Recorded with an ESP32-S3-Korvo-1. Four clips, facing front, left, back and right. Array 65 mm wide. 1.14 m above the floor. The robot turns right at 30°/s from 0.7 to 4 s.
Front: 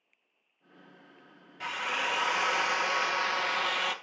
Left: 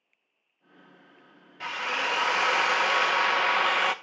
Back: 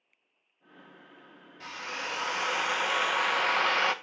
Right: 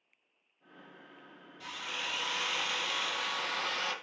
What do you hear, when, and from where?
1.6 s a drill: 60° left, 0.9 m; by 4.0 s 130° left, 0.9 m